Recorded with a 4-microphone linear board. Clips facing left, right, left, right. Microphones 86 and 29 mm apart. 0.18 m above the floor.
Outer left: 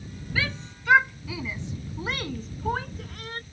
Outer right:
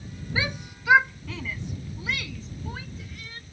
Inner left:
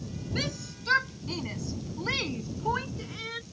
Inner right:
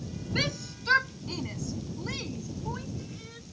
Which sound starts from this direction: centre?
A shout, at 0.3 s.